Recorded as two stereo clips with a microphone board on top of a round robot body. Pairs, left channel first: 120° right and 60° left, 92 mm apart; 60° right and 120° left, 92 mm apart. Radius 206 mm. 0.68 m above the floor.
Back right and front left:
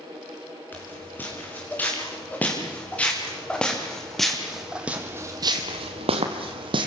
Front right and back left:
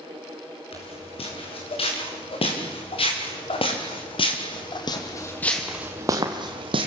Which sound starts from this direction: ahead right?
Footsteps, at 0.7 s.